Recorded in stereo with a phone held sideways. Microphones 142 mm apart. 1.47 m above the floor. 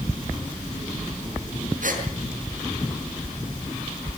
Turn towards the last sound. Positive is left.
turn(degrees=-65)  # may be behind; listen again after turning